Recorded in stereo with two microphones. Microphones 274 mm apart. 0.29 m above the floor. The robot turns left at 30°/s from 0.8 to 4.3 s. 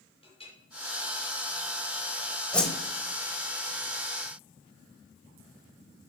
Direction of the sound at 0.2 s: 20° left (ahead or behind).